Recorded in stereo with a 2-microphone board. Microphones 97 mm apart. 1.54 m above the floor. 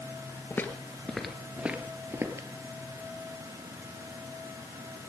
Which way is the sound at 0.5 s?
25° left (ahead or behind).